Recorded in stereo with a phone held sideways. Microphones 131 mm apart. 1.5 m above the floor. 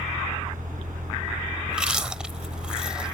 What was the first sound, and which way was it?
A fan, 85° right.